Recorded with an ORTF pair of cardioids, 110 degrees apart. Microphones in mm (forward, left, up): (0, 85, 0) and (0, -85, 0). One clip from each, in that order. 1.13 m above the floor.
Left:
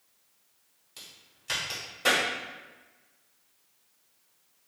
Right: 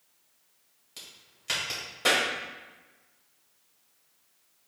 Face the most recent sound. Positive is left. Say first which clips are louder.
# right 1 dB
turn(degrees=-20)